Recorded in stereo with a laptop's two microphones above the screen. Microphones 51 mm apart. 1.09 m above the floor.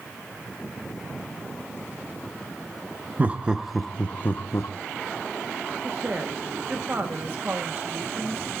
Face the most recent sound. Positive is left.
turn(degrees=-45)  # may be behind; listen again after turning